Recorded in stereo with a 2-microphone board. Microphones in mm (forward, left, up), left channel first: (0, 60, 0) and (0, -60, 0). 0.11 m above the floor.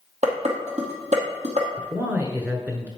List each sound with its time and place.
0.2 s dishes clattering: 70° right (ahead or behind), 2.5 m
1.8 s a man speaking: 15° right (ahead or behind), 1.3 m